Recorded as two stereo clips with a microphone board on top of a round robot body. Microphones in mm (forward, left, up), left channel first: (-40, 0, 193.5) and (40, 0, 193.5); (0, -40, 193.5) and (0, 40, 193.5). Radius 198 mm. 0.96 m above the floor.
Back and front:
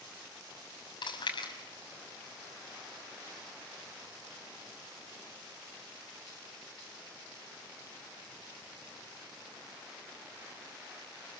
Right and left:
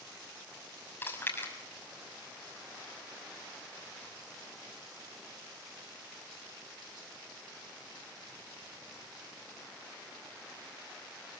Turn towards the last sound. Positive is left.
turn(degrees=-155)